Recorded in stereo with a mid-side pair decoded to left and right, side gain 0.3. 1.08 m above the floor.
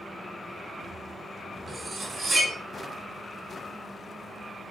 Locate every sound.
1.7 s cutlery clinking: 45° right, 1.2 m